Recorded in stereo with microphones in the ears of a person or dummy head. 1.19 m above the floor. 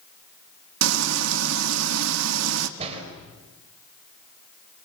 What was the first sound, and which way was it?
Frying, 80° right.